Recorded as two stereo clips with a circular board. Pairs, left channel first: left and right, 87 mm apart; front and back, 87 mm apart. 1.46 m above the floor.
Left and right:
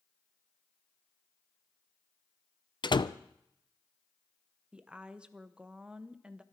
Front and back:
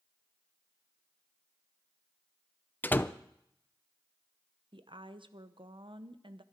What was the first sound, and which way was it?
A door slam, 65° left.